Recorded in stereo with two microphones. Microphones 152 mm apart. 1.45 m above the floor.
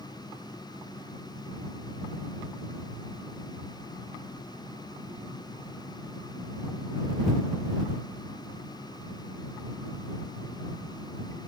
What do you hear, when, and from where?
Only background noise.